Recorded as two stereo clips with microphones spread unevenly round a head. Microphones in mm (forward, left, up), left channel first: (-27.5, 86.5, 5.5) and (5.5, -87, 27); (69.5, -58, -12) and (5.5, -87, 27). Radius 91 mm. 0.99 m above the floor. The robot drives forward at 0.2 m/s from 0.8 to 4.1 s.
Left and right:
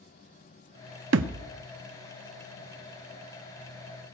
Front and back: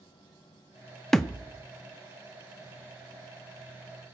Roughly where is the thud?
Right.